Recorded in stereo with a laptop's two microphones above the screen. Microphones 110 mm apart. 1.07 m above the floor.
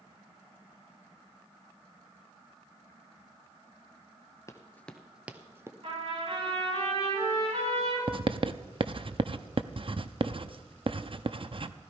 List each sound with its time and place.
4.5 s running footsteps: 30° left (ahead or behind), 1.1 m; by 5.7 s 25° right (ahead or behind), 1.5 m
5.8 s a trumpet: 65° right (ahead or behind), 8 m
8.1 s writing: 50° right (ahead or behind), 0.6 m